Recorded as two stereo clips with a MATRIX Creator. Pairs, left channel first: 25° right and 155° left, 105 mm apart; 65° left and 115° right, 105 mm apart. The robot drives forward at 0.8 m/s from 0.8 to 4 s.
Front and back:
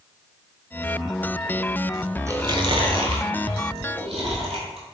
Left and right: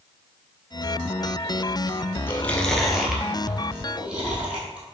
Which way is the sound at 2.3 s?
120° left.